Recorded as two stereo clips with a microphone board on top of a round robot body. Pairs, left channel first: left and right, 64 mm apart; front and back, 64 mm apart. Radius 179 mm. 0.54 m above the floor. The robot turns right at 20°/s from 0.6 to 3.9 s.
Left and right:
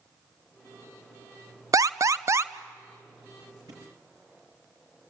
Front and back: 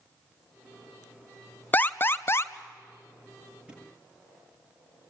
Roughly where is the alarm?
Ahead right.